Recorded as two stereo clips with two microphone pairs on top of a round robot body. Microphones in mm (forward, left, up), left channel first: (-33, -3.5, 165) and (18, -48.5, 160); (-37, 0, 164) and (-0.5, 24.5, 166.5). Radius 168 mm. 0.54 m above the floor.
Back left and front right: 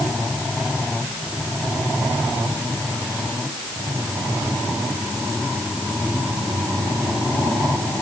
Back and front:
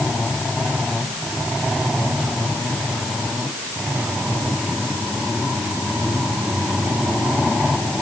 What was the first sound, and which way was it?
Only background noise.